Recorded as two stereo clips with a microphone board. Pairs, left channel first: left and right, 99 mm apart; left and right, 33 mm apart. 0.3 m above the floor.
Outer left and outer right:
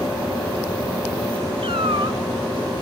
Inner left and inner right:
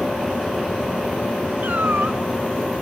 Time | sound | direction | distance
1.6 | a cat meowing | 65° right (ahead or behind) | 1.2 m